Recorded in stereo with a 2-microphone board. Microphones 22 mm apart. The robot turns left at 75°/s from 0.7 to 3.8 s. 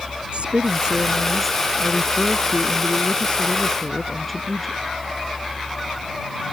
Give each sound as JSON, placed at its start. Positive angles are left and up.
{"t": 0.3, "sound": "a woman speaking", "azimuth_deg": -125}